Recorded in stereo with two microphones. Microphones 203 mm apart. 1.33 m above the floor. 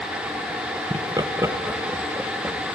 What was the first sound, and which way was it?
Laughter, 25° right (ahead or behind).